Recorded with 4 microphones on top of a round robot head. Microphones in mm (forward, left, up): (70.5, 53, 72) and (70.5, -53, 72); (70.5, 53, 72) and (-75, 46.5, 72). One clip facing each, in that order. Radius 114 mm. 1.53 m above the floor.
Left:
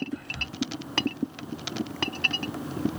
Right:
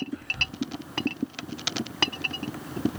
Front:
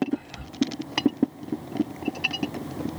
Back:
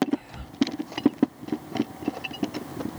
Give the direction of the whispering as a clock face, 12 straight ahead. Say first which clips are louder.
Even, back 1 dB; 8 o'clock.